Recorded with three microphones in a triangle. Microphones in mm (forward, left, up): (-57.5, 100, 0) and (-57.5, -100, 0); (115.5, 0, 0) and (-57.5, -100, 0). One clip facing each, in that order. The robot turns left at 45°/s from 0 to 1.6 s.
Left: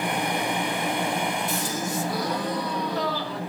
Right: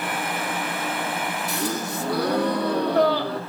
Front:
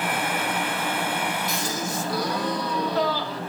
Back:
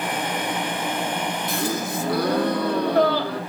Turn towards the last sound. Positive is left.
turn(degrees=-115)